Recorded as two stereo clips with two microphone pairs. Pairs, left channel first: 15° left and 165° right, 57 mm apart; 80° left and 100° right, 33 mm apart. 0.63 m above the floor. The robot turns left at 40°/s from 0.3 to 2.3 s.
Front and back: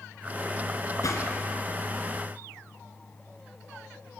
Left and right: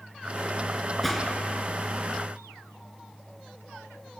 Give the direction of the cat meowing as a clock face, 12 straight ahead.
No cat meowing in this recording.